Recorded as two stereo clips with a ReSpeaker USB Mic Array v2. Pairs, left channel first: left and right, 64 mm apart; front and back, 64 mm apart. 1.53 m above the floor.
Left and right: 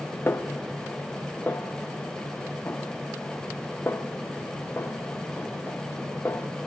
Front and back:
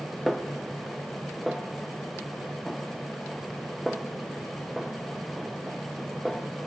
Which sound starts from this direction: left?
A snare drum, at 0.3 s.